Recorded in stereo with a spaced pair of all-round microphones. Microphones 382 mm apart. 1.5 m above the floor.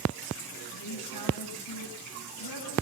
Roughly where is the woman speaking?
Left.